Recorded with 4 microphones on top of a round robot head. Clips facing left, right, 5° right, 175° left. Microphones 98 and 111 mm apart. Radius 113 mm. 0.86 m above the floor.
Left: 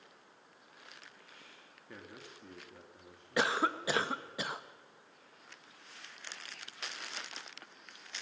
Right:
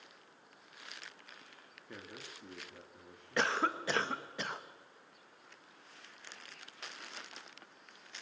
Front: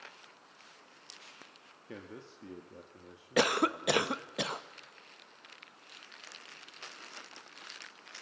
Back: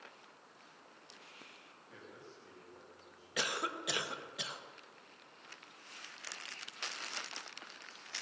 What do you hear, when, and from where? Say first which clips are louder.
1.9 s a man speaking: right 1 dB, front 8 dB; 5° right, 2.0 m
3.4 s a cough: left 1 dB, front 11 dB; 10° left, 1.0 m